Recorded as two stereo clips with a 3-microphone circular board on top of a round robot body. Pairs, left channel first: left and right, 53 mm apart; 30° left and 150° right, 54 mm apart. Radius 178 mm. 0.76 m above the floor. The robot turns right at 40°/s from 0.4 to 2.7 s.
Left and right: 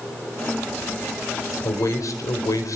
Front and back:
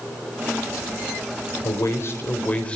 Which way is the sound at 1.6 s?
55° left.